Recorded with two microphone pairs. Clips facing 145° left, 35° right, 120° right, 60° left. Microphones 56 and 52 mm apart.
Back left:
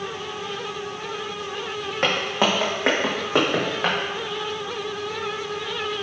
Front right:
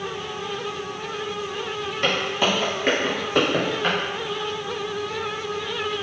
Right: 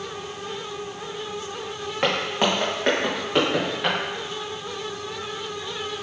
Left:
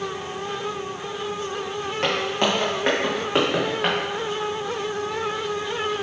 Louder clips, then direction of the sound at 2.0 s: Back left 1 dB, right 1 dB; 170° left.